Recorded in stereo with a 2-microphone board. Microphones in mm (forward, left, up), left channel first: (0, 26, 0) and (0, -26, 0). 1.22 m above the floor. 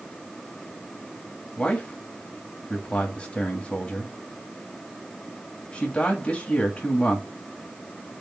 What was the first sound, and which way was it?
A man speaking, 25° left (ahead or behind).